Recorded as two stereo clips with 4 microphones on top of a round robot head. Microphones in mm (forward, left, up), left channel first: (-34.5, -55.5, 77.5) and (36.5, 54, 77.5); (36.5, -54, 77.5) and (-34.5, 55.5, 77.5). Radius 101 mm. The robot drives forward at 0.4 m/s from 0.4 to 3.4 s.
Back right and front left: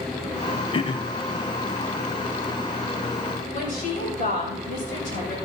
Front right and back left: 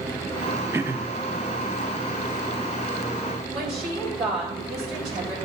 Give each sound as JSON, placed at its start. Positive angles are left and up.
{"t": 0.7, "sound": "throat clearing", "azimuth_deg": -165, "distance_m": 0.9}
{"t": 3.5, "sound": "a woman speaking", "azimuth_deg": -150, "distance_m": 8.5}